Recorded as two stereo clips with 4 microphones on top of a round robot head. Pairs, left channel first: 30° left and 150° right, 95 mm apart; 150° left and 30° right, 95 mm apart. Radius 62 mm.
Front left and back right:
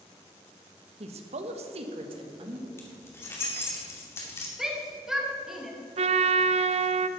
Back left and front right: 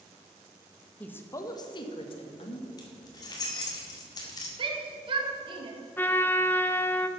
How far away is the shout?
About 2 m.